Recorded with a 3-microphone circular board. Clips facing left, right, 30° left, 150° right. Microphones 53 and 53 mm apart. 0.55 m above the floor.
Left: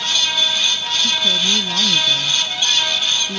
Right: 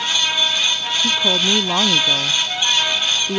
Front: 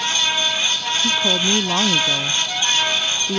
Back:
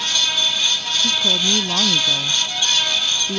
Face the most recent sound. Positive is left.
turn(degrees=-45)